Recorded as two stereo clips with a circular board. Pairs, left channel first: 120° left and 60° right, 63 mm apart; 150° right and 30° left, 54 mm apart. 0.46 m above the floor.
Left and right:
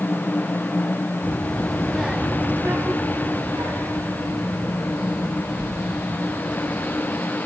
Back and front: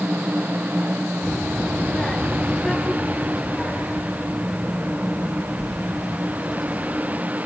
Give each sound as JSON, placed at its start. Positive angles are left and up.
{"t": 1.2, "sound": "a child speaking", "azimuth_deg": 140, "distance_m": 0.7}